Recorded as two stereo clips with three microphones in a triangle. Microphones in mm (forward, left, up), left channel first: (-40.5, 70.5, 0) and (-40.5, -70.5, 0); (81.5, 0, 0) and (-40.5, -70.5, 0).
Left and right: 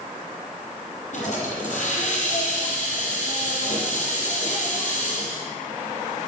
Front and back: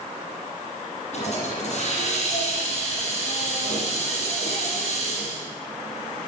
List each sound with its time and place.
1.1 s a hiss: 65° left, 5 m